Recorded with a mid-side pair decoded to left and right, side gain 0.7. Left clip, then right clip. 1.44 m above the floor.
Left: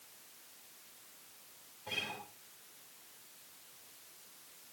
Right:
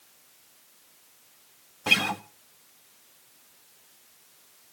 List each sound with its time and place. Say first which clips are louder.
1.9 s a guitar: right 16 dB; 70° right, 1.5 m